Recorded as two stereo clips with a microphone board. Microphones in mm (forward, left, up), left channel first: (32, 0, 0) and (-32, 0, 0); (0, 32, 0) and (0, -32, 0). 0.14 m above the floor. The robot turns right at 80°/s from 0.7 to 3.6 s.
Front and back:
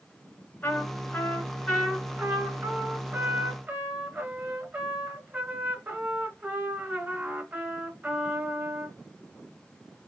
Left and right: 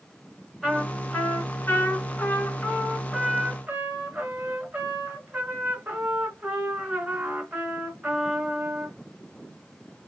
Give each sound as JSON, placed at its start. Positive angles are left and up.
{"t": 0.6, "sound": "a trumpet", "azimuth_deg": -20, "distance_m": 2.0}